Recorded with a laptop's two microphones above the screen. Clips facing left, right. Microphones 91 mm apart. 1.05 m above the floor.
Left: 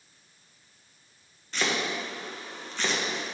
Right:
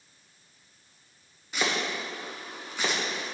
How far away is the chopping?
About 0.9 m.